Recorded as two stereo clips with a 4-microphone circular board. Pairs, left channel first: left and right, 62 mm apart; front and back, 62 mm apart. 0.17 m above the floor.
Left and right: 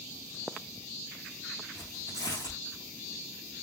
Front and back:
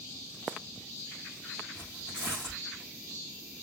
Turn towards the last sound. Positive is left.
turn(degrees=75)